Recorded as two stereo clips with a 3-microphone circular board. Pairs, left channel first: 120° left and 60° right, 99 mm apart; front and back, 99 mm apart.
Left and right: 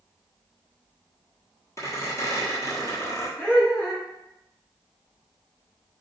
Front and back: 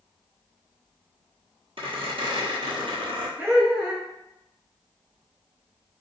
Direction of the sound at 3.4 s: 135° left.